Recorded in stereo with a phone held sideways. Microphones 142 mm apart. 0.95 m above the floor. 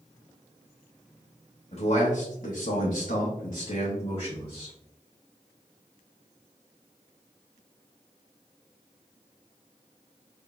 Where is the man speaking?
50° left (ahead or behind), 1.0 m; by 4.7 s 35° left (ahead or behind), 1.3 m.